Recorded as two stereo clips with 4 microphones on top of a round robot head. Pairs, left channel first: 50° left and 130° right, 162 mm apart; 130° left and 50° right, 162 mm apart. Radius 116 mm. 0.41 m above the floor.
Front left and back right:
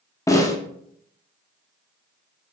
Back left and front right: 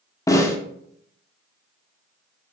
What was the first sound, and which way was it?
A snare drum, 90° left.